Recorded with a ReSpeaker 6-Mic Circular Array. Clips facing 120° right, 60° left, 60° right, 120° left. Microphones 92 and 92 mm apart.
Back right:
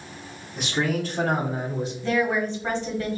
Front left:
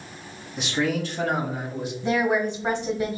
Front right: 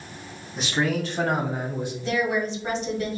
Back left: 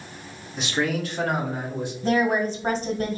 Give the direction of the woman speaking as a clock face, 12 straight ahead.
8 o'clock.